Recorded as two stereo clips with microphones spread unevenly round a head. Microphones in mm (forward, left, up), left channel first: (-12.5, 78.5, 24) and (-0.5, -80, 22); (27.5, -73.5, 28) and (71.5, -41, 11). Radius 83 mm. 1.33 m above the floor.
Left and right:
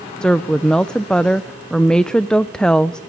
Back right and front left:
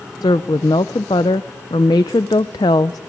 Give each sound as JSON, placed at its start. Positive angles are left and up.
{"t": 0.2, "sound": "a woman speaking", "azimuth_deg": 180, "distance_m": 0.6}